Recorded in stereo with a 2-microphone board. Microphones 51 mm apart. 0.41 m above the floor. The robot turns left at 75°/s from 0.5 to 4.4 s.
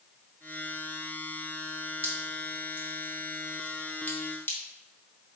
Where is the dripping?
40° right (ahead or behind), 0.9 m; by 4.6 s 40° left (ahead or behind), 0.9 m.